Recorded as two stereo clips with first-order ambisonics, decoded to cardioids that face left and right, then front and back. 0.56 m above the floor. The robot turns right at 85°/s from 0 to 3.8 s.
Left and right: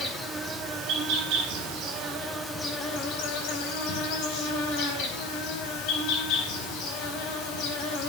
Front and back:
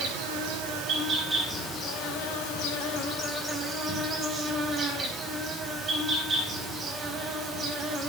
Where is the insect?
155° left, 4.5 m; by 8.1 s 115° left, 4.5 m.